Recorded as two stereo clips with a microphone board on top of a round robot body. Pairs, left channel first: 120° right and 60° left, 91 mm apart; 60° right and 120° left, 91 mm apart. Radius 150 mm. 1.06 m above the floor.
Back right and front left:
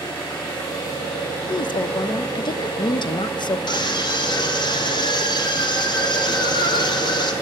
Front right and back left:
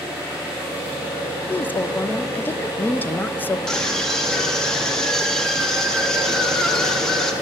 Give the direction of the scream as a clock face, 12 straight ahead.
5 o'clock.